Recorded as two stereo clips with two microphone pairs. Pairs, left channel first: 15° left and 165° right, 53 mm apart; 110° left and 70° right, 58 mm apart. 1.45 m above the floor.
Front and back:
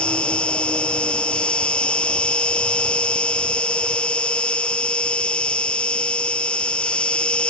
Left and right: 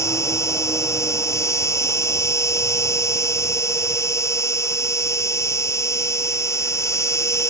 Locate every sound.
0.0 s an insect: 85° left